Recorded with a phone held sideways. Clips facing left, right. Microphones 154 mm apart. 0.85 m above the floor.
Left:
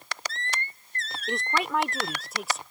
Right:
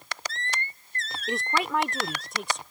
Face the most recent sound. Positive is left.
turn(degrees=5)  # may be behind; listen again after turning